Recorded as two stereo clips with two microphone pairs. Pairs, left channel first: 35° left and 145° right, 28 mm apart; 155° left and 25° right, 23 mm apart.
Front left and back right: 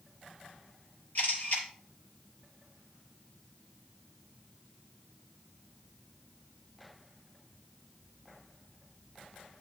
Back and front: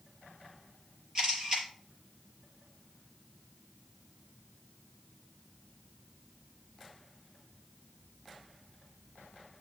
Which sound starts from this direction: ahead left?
A camera shutter, at 1.1 s.